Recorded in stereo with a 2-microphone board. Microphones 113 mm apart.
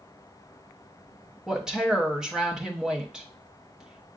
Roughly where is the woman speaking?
Centre.